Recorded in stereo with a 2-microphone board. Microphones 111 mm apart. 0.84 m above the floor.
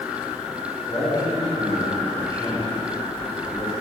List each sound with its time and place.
0.9 s a man speaking: 20° left (ahead or behind), 3 m